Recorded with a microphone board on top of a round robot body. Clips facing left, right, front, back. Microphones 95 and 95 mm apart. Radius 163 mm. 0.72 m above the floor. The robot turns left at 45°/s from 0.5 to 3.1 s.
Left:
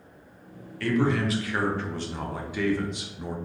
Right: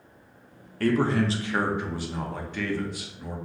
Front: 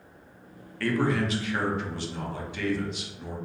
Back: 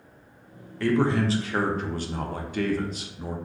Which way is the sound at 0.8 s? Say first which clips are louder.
Right 1 dB, back 3 dB; 115° right.